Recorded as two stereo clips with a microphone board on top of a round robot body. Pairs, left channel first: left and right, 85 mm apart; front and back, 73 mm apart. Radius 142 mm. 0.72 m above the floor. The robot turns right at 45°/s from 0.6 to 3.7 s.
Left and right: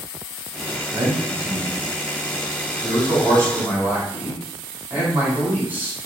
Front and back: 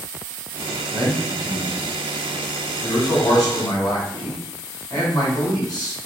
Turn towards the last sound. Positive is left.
turn(degrees=-20)